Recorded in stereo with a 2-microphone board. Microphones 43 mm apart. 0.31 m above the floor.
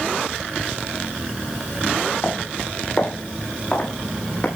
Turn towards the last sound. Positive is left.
turn(degrees=40)  # may be behind; listen again after turning